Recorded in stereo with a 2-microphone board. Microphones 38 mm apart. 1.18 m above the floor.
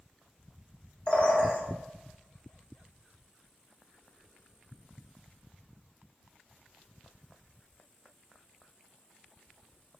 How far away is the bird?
About 0.8 m.